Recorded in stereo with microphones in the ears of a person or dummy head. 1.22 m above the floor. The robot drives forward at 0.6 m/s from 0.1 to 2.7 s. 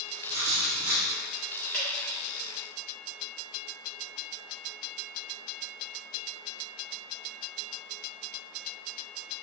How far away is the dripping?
About 1.6 m.